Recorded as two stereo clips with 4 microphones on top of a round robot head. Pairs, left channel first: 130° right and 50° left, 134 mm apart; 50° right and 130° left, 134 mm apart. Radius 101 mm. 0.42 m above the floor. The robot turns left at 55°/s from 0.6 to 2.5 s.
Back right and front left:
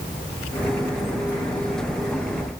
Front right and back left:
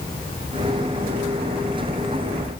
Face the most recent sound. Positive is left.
No sound to turn to.